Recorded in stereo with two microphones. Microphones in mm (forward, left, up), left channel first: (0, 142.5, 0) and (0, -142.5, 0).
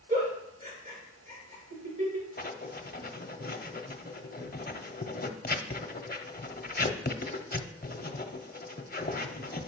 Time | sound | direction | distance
0.1 | a giggle | 25° right (ahead or behind) | 3.5 m
2.4 | writing | 30° left (ahead or behind) | 0.6 m